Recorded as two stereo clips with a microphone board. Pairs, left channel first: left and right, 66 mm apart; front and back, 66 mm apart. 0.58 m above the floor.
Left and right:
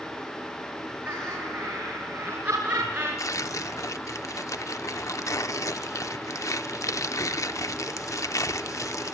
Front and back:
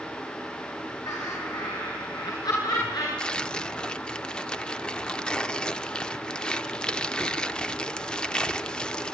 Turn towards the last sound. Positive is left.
turn(degrees=75)